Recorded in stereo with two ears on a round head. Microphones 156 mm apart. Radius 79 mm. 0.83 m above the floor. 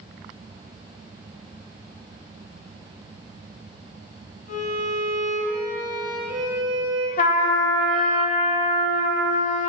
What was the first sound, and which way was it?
A violin, 45° left (ahead or behind).